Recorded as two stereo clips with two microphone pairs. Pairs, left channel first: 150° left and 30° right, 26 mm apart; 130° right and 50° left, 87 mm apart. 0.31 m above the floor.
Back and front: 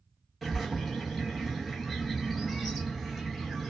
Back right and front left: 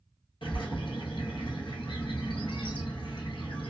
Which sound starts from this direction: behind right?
A bird, at 0.4 s.